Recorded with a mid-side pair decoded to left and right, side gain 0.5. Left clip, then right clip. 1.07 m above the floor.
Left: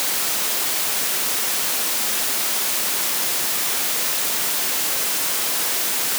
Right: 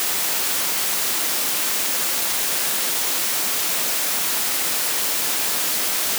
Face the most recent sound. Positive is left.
No sound to turn to.